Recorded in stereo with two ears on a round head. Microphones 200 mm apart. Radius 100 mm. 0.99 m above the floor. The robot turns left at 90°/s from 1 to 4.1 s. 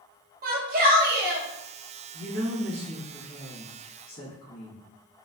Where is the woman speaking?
95° right, 1.2 m; by 4.8 s 90° left, 1.2 m.